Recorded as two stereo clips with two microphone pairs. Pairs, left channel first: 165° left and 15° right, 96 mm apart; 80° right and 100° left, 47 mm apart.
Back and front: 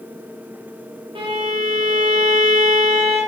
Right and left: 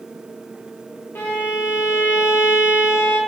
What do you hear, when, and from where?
1.1 s a violin: 45° right, 6 m